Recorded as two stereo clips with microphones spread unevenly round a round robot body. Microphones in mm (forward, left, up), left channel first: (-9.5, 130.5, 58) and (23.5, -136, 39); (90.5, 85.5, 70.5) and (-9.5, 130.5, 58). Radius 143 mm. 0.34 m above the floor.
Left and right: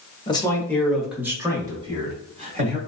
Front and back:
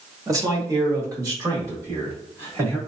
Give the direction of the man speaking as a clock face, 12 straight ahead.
7 o'clock.